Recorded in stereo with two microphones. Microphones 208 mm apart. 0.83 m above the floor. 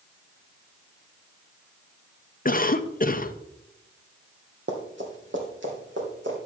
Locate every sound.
2.5 s a cough: 40° left (ahead or behind), 0.5 m
4.7 s running footsteps: 60° right (ahead or behind), 1.5 m; by 6.4 s 65° right (ahead or behind), 3 m